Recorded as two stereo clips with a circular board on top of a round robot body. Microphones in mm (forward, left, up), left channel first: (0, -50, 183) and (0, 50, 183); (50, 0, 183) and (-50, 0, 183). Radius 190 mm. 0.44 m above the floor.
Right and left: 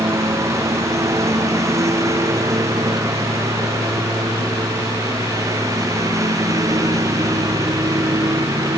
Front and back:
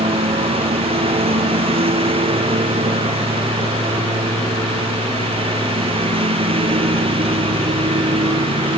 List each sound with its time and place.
0.0 s a lawn mower: 150° left; by 8.8 s 145° left